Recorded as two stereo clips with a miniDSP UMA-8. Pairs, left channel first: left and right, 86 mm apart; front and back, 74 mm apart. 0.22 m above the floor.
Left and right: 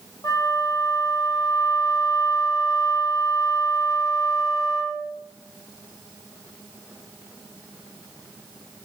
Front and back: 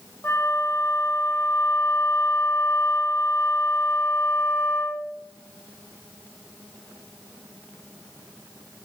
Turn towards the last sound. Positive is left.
turn(degrees=50)